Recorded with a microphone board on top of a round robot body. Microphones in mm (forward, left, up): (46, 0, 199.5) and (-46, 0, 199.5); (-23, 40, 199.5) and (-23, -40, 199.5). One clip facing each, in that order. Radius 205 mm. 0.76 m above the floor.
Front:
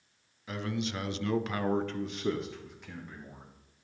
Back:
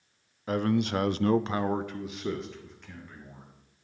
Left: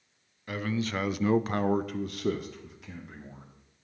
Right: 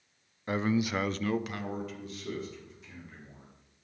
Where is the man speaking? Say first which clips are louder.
Back 8 dB, right 3 dB; 145° right, 0.8 m; by 3.5 s 80° left, 1.7 m.